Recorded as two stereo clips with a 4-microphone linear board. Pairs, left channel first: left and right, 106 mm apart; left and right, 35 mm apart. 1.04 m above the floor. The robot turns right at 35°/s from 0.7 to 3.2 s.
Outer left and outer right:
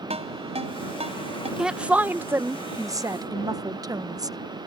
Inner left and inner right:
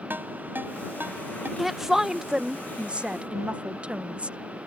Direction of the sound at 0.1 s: 75° right (ahead or behind).